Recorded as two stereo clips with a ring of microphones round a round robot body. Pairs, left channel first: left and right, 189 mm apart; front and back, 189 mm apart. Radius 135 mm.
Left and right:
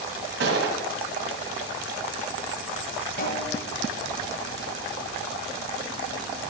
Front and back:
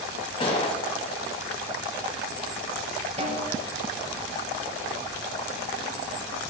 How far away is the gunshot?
About 2 m.